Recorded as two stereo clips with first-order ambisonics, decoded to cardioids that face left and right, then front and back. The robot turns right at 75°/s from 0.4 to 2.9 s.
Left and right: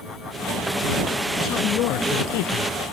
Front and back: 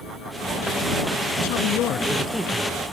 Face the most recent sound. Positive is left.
turn(degrees=130)